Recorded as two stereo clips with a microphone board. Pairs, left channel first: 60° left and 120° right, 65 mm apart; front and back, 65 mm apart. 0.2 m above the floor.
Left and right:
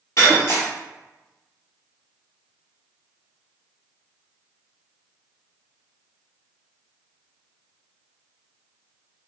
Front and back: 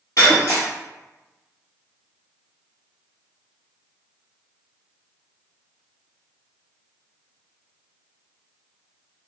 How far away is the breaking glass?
About 1.6 m.